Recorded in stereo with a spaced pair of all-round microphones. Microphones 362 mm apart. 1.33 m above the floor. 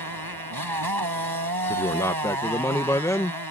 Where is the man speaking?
10° left (ahead or behind).